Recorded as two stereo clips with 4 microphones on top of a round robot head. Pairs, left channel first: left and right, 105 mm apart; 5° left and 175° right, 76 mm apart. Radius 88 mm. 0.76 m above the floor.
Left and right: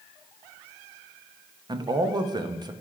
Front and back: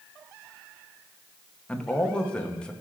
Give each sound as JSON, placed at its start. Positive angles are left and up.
{"t": 1.7, "sound": "a man speaking", "azimuth_deg": -70, "distance_m": 0.9}